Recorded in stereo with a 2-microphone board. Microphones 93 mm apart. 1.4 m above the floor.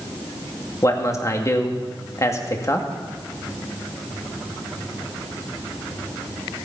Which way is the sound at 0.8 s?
35° left (ahead or behind).